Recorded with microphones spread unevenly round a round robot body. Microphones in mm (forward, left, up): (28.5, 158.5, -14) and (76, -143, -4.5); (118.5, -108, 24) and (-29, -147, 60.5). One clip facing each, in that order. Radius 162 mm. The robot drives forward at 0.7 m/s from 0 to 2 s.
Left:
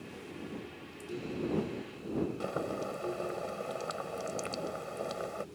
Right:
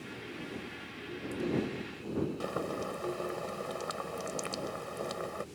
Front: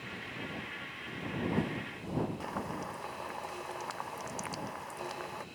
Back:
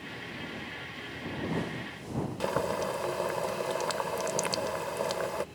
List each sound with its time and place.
2.4 s boiling: 165° right